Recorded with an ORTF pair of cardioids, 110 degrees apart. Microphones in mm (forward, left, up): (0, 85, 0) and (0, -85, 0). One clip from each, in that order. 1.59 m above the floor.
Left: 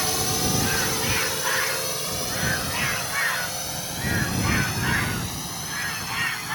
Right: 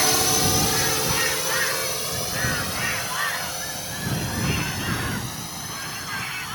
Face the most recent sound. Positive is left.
turn(degrees=10)